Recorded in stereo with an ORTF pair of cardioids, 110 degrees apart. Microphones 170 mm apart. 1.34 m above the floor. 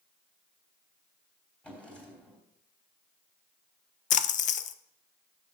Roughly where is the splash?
Ahead left.